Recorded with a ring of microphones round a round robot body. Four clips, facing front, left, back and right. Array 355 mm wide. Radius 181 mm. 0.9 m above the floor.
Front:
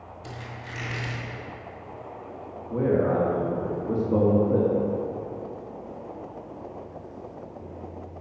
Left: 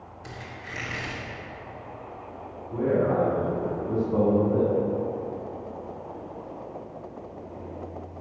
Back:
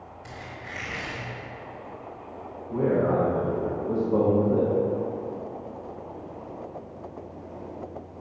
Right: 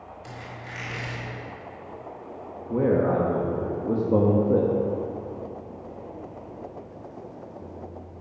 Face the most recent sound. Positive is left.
turn(degrees=-85)